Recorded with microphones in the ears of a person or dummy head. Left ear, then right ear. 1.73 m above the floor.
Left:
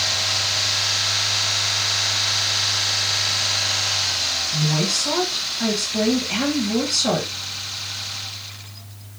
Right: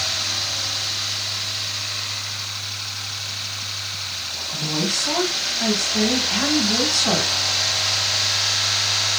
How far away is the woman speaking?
About 2 m.